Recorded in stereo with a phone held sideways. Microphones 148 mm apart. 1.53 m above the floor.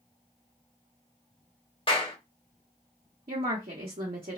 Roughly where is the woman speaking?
Right.